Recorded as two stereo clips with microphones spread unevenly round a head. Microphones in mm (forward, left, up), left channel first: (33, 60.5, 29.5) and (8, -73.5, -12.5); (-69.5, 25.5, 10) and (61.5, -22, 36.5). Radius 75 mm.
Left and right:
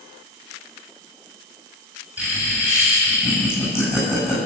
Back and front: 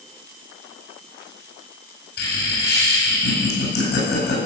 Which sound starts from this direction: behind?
Laughter, at 2.2 s.